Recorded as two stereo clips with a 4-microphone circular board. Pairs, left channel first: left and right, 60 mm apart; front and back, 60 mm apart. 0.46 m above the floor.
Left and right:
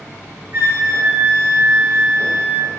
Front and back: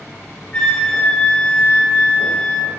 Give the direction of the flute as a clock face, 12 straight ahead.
2 o'clock.